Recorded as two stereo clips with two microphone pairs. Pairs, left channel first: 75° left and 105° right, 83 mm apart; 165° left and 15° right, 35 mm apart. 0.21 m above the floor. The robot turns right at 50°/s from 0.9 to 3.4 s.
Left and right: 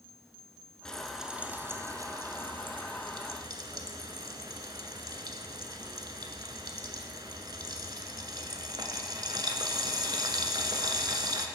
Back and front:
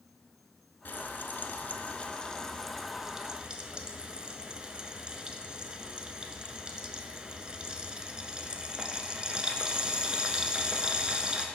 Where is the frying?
160° left, 0.5 m; by 11.5 s 75° right, 0.5 m.